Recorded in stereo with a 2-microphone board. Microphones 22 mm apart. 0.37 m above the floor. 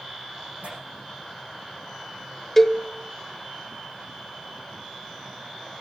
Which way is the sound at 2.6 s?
15° left (ahead or behind).